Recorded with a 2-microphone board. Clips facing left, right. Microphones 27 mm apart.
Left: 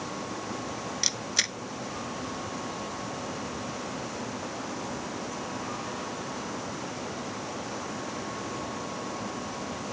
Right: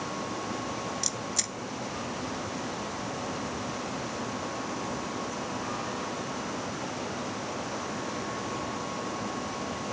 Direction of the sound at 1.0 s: 45° left (ahead or behind).